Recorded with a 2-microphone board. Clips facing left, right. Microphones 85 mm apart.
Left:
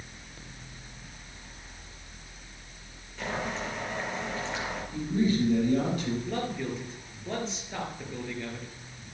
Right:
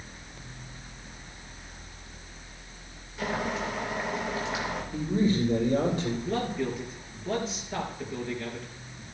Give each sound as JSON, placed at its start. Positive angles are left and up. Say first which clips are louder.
{"t": 3.2, "sound": "boiling", "louder": "right 3 dB", "side_deg": -10, "distance_m": 4.0}
{"t": 4.9, "sound": "a man speaking", "louder": "right 1 dB", "side_deg": -30, "distance_m": 6.0}
{"t": 6.2, "sound": "a man speaking", "louder": "right 3 dB", "side_deg": -5, "distance_m": 4.5}